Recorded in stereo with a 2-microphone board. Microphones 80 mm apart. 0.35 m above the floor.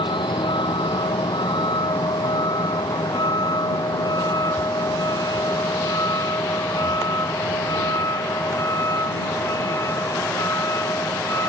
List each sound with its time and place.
0.0 s a vehicle: 85° left; by 11.5 s 35° left (ahead or behind)